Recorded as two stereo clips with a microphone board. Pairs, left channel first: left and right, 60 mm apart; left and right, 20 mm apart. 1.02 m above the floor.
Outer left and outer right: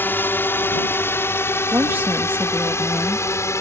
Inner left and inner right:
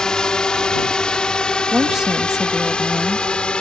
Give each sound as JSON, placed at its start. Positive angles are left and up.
{"t": 0.0, "sound": "a drone", "side_deg": 35}
{"t": 1.7, "sound": "a woman speaking", "side_deg": -30}